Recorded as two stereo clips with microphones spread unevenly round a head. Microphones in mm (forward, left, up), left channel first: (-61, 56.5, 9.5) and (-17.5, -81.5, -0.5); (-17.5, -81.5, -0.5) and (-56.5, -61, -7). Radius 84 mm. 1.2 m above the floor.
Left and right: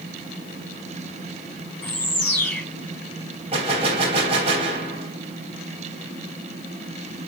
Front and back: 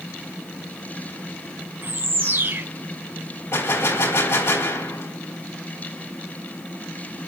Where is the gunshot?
10° right, 3 m.